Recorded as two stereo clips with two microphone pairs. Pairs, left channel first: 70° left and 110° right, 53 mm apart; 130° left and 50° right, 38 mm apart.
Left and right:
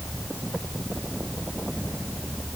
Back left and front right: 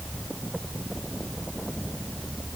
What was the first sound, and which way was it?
Only background noise.